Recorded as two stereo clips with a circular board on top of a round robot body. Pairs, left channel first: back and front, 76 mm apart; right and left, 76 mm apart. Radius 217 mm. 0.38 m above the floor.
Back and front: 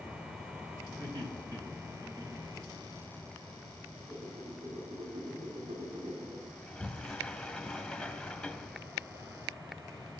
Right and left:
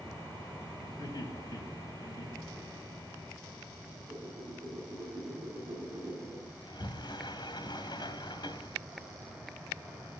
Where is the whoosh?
30° left, 5.5 m.